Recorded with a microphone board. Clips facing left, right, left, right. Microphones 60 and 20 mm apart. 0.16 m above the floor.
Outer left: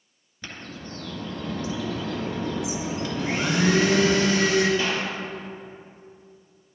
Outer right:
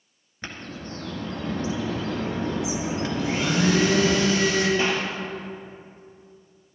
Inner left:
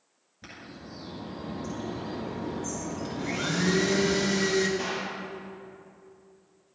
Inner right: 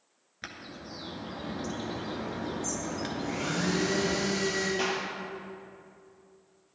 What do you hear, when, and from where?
0.4 s a bird: 45° right (ahead or behind), 1.8 m
3.2 s a blender: 55° left (ahead or behind), 2.5 m
4.8 s a clap: 30° right (ahead or behind), 2.5 m